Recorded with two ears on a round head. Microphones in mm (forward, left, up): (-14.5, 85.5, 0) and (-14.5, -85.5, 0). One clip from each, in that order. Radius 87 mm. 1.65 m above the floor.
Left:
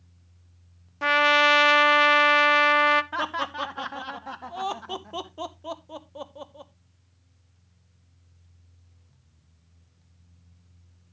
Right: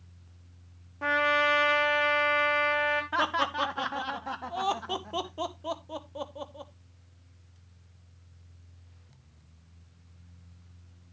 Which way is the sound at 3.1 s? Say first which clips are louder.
Right 1 dB; centre (ahead or behind).